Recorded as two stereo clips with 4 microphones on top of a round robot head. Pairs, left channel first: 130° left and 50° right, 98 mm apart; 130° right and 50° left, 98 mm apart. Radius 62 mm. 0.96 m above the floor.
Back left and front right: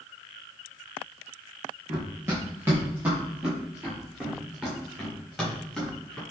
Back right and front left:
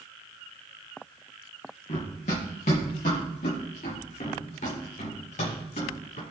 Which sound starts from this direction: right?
Running footsteps, at 1.9 s.